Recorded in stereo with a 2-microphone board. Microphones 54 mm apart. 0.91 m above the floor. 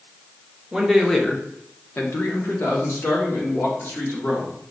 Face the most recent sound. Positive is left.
turn(degrees=55)  # may be behind; listen again after turning